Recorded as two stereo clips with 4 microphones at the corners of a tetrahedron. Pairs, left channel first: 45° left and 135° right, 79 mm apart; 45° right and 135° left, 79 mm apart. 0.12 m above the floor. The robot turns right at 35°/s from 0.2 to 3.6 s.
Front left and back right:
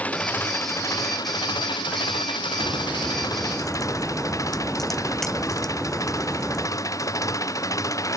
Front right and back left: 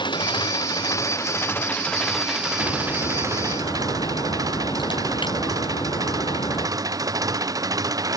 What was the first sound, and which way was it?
An engine running, 30° right.